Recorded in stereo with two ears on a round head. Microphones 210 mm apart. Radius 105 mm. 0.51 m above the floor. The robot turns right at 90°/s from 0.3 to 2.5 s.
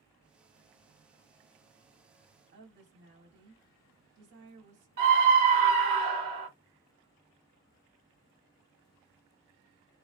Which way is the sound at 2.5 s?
50° right (ahead or behind).